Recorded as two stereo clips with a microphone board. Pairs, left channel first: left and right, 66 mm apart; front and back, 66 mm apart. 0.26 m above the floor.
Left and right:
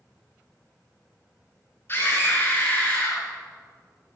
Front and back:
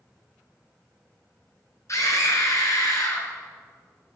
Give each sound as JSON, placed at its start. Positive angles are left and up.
{"t": 1.9, "sound": "a scream", "azimuth_deg": 35, "distance_m": 3.0}